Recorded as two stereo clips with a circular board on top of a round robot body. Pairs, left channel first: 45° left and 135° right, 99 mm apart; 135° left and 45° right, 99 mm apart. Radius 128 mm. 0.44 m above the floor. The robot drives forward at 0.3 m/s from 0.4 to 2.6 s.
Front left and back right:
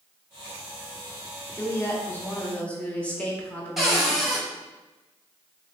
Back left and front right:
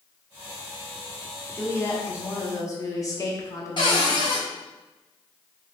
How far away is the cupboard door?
About 1.2 m.